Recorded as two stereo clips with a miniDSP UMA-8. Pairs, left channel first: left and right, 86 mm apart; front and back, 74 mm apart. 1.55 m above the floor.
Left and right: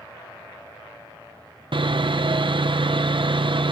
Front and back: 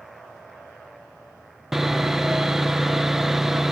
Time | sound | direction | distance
1.7 | sawing | 95° right | 0.6 m